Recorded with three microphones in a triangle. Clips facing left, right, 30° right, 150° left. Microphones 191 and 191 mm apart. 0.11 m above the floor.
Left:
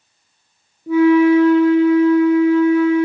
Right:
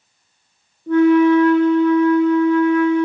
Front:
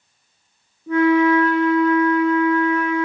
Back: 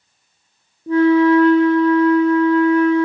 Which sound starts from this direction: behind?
A flute, at 0.9 s.